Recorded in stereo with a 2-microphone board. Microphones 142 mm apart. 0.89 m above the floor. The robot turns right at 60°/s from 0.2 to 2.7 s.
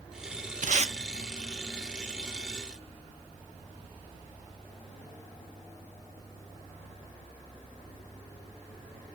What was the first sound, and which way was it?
Tape being pulled, 65° right (ahead or behind).